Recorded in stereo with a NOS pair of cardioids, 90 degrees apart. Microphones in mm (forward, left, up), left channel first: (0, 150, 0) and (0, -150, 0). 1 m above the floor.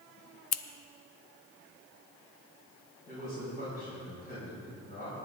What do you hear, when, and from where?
0.5 s scissors: 55° left, 0.6 m
3.1 s a man speaking: 30° left, 5.5 m